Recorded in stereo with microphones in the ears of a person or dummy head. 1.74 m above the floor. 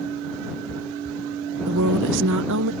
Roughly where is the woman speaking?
Right.